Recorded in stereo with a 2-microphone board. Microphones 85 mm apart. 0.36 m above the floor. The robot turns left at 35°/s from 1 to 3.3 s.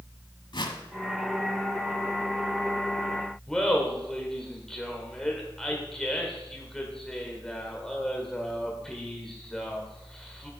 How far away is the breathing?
No breathing in this recording.